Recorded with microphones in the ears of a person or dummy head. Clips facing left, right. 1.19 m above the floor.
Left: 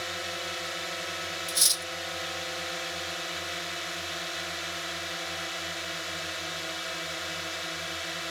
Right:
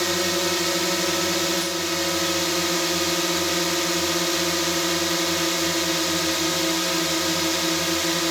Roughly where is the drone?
Right.